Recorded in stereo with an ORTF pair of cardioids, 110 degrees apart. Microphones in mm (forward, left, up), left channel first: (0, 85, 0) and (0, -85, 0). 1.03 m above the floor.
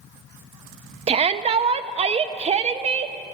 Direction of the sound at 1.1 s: 35° right.